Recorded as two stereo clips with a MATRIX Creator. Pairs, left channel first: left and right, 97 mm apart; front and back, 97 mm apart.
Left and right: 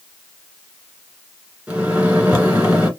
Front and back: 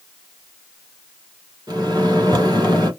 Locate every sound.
1.7 s a microwave: 155° right, 1.5 m